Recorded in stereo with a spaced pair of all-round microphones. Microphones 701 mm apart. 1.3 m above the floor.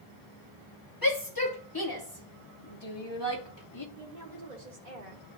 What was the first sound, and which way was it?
A shout, 30° left (ahead or behind).